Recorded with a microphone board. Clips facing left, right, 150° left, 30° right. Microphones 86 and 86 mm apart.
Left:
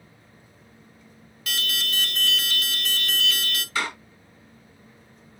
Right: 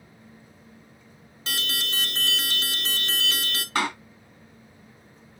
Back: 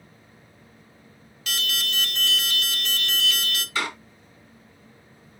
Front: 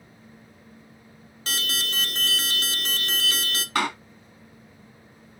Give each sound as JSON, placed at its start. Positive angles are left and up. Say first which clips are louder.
{"t": 1.5, "sound": "an alarm", "louder": "left 1 dB, even", "azimuth_deg": -50, "distance_m": 1.0}
{"t": 3.8, "sound": "a door slam", "louder": "right 3 dB, front 4 dB", "azimuth_deg": -55, "distance_m": 3.0}